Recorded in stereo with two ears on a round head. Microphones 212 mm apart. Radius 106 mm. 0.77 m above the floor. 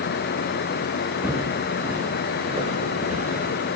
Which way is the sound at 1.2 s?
5° right (ahead or behind).